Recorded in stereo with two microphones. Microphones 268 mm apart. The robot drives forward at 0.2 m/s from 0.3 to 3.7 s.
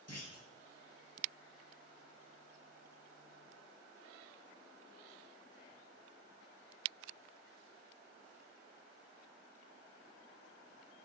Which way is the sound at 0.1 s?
65° left (ahead or behind).